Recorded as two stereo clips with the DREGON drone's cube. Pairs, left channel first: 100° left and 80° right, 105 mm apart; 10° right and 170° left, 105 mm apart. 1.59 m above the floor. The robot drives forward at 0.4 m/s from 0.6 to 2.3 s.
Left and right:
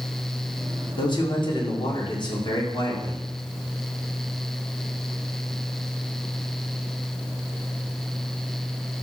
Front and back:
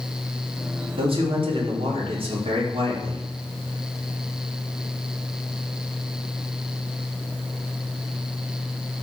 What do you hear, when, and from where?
1.0 s a man speaking: 140° left, 4.5 m; by 3.3 s 145° left, 5 m